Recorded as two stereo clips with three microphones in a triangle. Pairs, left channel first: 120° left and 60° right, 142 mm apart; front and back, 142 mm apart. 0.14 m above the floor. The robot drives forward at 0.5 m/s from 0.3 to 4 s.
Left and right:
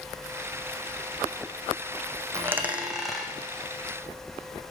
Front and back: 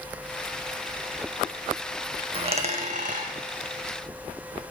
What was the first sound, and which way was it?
A dropped coin, 130° right.